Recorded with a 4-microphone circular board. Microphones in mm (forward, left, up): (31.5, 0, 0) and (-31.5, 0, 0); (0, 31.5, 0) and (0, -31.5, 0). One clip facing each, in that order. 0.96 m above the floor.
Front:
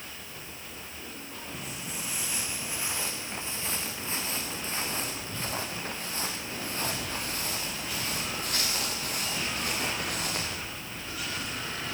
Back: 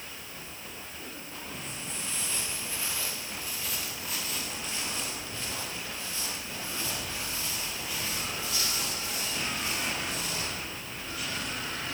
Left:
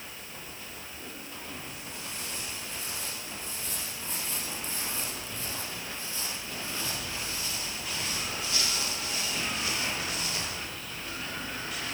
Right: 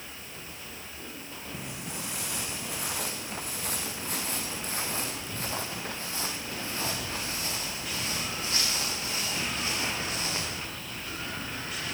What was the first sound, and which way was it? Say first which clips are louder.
Footsteps: front 2 dB, right 3 dB; 85° right.